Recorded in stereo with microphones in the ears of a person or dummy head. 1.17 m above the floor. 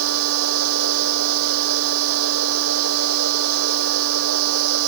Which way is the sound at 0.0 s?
80° right.